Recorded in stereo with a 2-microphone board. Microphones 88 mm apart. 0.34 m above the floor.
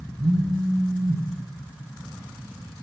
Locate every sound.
0.2 s a phone buzzing: 55° right (ahead or behind), 0.8 m